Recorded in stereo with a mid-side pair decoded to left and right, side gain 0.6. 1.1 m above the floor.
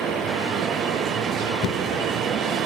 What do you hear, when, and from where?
1.6 s knocking: 65° left, 0.6 m